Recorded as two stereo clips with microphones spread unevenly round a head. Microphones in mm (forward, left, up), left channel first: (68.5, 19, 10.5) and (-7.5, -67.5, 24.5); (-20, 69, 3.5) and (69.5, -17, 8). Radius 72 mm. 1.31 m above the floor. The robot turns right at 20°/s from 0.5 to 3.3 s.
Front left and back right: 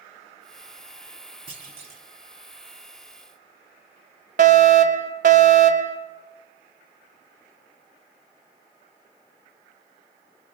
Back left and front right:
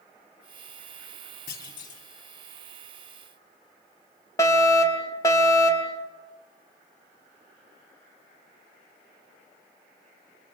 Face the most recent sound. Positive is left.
turn(degrees=-155)